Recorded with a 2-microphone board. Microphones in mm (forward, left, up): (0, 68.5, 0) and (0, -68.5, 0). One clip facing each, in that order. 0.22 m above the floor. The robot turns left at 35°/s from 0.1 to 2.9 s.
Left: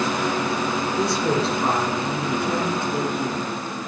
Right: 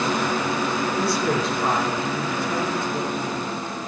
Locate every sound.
1.0 s a woman speaking: 160° left, 2.5 m; by 3.5 s 90° left, 2.5 m